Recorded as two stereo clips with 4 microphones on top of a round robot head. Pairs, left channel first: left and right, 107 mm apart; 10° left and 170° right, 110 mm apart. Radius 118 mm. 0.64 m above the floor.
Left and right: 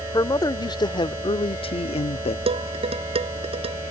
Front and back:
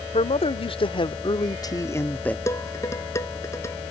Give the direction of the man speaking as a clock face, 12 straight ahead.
11 o'clock.